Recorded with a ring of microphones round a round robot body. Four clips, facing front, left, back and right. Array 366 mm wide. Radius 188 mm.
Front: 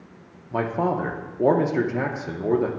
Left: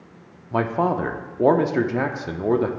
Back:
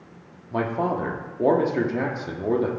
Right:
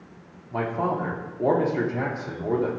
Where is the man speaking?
85° left, 0.8 m.